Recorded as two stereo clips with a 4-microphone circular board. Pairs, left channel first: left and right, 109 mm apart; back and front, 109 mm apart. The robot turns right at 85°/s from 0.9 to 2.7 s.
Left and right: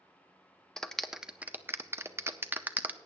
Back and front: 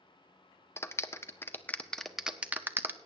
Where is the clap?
170° left, 0.6 m; by 3.0 s 40° right, 0.6 m.